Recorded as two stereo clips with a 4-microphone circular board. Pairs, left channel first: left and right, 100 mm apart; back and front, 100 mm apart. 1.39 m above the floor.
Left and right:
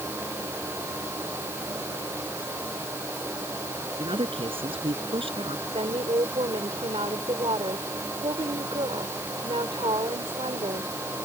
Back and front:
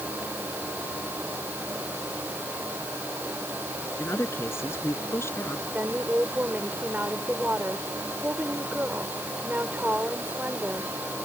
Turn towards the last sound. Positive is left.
turn(degrees=-70)